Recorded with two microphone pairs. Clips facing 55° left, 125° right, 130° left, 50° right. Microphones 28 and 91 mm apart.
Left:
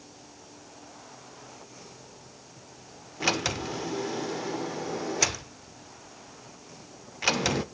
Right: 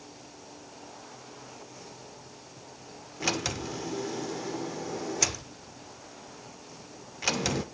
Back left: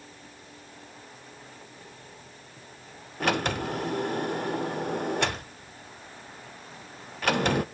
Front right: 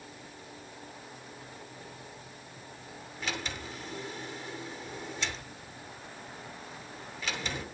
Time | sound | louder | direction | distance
3.2 | a sliding door | left 3 dB, back left 12 dB | 135° left | 0.6 m